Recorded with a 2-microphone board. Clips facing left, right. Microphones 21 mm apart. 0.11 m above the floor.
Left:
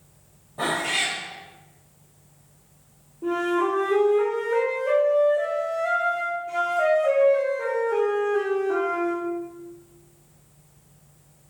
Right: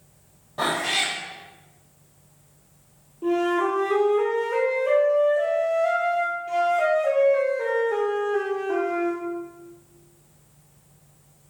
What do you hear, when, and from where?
0.6 s a cat meowing: 50° right (ahead or behind), 1.7 m
3.2 s a flute: 35° right (ahead or behind), 1.8 m